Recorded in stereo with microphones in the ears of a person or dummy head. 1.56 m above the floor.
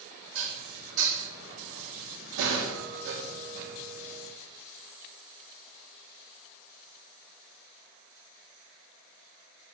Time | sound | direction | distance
0.3 | dishes clattering | 70° right (ahead or behind) | 2.0 m